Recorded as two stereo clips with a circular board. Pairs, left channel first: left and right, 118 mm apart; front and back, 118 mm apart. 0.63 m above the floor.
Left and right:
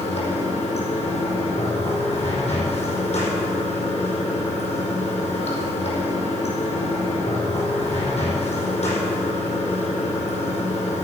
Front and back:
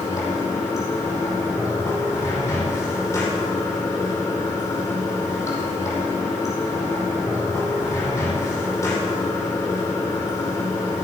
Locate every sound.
0.0 s running water: 65° left, 5 m